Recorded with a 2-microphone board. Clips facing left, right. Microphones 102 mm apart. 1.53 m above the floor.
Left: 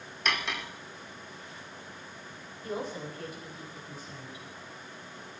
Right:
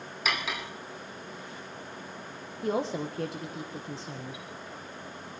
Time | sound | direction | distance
0.2 | cutlery clinking | 5° right (ahead or behind) | 2 m
2.6 | a woman speaking | 80° right | 1.6 m